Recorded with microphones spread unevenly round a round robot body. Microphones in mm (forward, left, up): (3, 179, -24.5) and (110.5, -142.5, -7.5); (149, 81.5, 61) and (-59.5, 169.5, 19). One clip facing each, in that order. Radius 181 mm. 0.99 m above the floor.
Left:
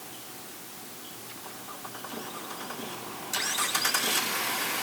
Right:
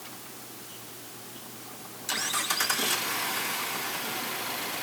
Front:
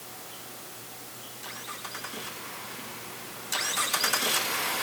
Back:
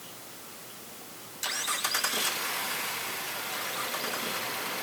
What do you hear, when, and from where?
Only background noise.